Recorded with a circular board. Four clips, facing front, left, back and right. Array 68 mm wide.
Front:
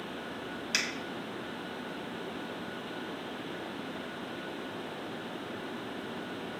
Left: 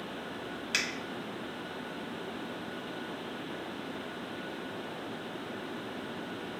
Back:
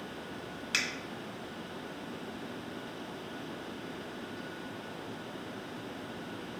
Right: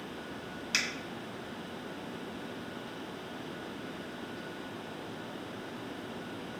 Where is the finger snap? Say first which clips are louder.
Even, even; 140° left, 1.4 m.